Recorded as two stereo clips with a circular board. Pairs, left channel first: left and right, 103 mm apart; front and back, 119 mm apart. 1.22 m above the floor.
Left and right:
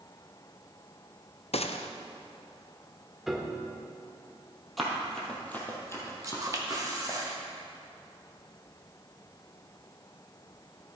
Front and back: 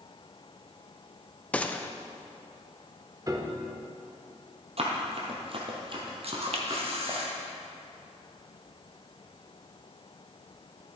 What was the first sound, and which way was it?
A gunshot, 80° left.